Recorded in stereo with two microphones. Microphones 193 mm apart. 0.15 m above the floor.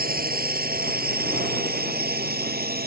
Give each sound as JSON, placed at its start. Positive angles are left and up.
{"t": 0.0, "sound": "a drone", "side_deg": -50}